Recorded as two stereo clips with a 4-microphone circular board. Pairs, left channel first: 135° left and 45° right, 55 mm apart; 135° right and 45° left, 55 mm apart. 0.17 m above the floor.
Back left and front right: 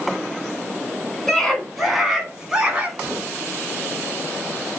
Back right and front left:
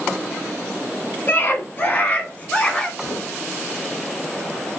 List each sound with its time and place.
1.3 s a scream: 145° right, 1.4 m; by 2.9 s 85° right, 1.2 m
3.0 s a gunshot: 125° right, 3.5 m